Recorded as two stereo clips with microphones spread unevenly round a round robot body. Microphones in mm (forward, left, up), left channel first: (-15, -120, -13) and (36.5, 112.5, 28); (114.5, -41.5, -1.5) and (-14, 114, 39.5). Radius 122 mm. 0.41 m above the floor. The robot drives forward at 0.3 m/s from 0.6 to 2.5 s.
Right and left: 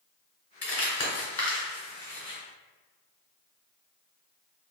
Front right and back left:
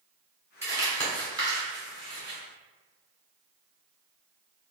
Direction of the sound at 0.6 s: 145° right.